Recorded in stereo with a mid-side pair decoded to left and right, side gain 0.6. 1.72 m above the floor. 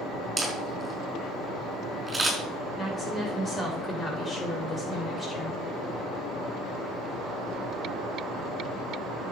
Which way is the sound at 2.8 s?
20° left.